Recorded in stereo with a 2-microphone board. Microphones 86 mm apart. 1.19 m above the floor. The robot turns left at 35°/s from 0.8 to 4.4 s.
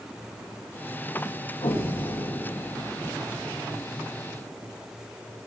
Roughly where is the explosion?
Left.